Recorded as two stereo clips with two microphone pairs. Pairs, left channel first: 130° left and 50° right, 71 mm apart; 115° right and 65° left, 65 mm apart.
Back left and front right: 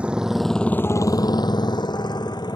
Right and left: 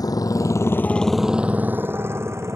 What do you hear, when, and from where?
0.0 s a motorcycle: 125° right; by 2.6 s 110° left